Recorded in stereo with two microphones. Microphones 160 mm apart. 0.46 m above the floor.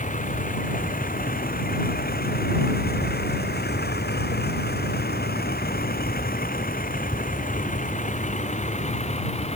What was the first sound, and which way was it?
A vehicle, 50° left (ahead or behind).